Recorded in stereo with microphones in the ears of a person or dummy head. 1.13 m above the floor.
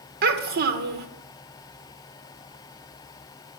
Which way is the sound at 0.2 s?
50° right (ahead or behind).